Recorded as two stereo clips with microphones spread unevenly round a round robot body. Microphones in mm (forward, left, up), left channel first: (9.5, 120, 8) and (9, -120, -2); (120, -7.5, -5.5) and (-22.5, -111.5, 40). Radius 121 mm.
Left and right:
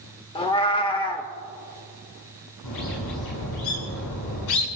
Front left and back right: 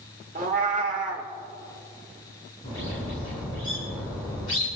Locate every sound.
0.3 s a cat meowing: 160° left, 1.0 m
2.6 s a bird: 105° left, 7.5 m